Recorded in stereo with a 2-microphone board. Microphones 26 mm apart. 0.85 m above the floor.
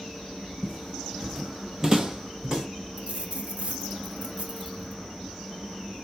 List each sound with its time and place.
0.6 s footsteps: 25° left (ahead or behind), 1.0 m; by 2.7 s 25° right (ahead or behind), 2.5 m
3.0 s a dropped coin: 60° right (ahead or behind), 0.9 m